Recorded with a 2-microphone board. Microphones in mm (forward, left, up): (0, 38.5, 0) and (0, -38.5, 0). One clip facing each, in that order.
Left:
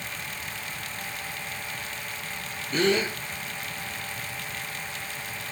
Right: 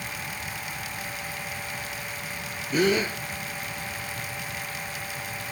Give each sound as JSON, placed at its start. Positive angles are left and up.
{"t": 2.7, "sound": "a gasp", "side_deg": -10, "distance_m": 2.5}